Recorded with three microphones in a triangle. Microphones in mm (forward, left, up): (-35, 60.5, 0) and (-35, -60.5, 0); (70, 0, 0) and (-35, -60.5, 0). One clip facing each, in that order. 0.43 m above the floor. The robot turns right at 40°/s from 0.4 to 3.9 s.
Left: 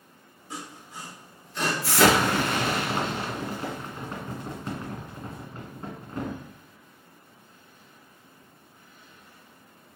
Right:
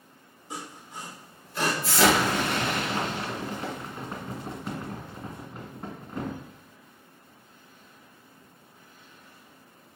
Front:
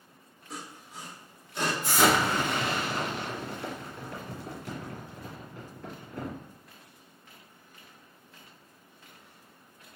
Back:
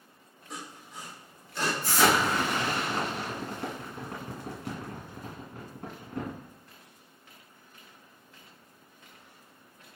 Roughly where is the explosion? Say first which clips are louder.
Left 2 dB, even; left.